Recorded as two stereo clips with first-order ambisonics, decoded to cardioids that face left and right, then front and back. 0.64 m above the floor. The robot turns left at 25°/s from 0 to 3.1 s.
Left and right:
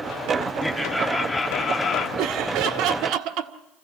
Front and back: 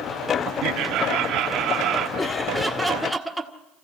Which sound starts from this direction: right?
Laughter, at 2.2 s.